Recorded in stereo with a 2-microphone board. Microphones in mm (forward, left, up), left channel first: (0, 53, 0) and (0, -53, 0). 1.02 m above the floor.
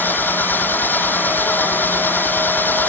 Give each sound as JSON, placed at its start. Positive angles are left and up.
{"t": 0.0, "sound": "an engine running", "side_deg": 15}